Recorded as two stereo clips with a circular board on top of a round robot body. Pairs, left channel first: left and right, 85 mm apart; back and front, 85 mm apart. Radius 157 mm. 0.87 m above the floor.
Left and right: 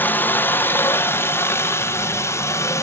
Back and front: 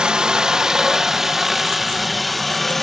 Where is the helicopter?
65° left; by 2.8 s 95° left.